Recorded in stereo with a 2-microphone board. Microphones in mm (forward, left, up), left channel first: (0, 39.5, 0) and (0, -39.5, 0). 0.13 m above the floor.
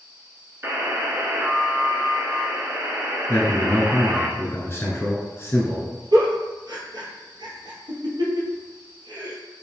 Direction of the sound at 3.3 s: 25° left (ahead or behind).